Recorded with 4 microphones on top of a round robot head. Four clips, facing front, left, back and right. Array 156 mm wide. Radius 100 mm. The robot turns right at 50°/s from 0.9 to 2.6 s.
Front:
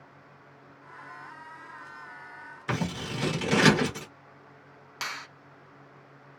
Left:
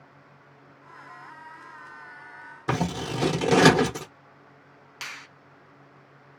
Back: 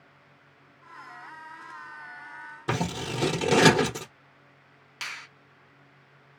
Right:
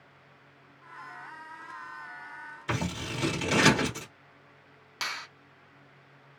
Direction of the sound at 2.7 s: 125° left.